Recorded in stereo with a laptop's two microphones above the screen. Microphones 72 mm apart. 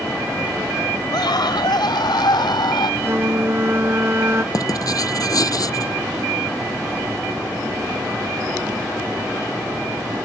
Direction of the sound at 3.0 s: 35° right (ahead or behind).